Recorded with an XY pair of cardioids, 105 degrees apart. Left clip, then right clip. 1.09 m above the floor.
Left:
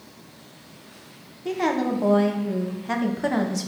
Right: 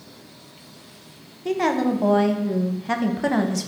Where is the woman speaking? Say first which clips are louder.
Right 2 dB; 15° right, 0.5 m.